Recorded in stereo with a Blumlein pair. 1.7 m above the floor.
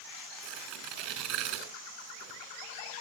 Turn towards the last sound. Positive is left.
turn(degrees=-40)